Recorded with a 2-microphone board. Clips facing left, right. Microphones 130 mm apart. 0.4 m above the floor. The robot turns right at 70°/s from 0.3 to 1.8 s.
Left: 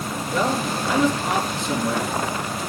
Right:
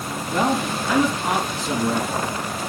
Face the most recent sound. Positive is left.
turn(degrees=-25)